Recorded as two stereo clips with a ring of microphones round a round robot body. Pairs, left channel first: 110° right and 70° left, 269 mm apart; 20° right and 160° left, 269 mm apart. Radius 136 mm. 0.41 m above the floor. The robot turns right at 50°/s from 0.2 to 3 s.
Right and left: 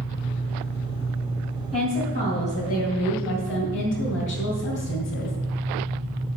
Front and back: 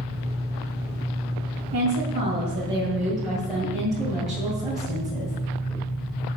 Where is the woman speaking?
Straight behind, 2.5 m; by 5.4 s 115° right, 2.5 m.